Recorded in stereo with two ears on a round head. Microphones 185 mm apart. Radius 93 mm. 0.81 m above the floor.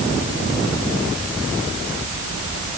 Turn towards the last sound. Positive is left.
No sound to turn to.